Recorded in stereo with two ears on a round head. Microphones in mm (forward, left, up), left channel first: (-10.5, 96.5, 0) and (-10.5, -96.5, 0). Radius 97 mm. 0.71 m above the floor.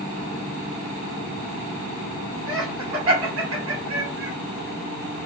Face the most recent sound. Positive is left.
turn(degrees=-75)  # may be behind; listen again after turning